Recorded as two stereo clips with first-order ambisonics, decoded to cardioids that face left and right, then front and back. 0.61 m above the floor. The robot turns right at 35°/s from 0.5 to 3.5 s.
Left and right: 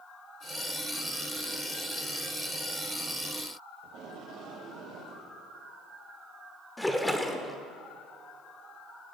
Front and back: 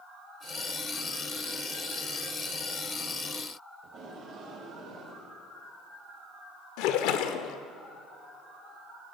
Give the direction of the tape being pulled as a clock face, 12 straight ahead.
4 o'clock.